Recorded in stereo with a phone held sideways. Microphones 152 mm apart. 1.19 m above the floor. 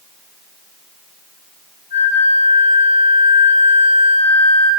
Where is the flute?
50° right (ahead or behind), 6 m.